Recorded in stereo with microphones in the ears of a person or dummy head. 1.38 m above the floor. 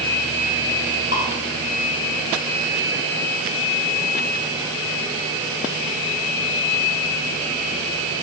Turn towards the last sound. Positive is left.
turn(degrees=60)  # may be behind; listen again after turning